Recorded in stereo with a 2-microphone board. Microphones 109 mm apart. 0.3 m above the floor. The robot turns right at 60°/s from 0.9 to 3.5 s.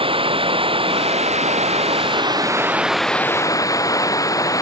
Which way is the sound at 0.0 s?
125° right.